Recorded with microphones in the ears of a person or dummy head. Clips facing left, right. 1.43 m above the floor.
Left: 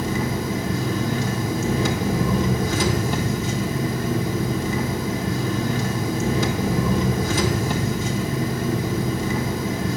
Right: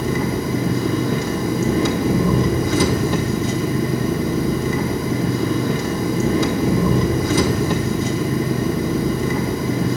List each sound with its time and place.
0.0 s an engine running: 70° right (ahead or behind), 0.7 m